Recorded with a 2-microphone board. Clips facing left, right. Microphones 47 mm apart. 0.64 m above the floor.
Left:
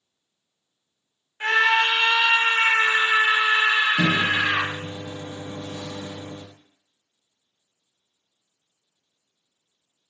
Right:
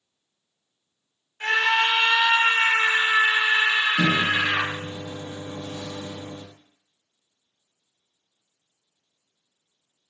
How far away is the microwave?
About 0.7 m.